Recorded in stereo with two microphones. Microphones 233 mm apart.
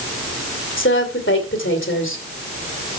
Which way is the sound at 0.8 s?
60° left (ahead or behind).